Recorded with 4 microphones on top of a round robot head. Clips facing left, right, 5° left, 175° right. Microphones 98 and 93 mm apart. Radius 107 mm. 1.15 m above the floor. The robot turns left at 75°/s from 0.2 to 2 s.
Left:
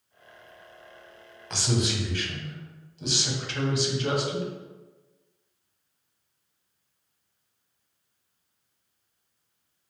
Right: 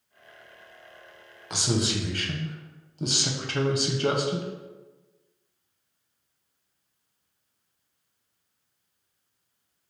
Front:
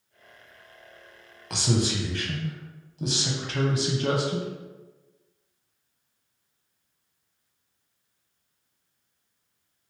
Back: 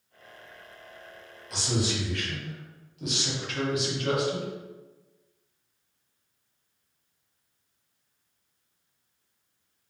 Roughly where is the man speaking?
Ahead.